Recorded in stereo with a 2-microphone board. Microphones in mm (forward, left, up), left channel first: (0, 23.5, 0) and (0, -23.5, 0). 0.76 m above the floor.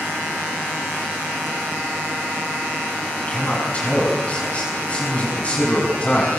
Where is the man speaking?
30° left (ahead or behind), 6.5 m.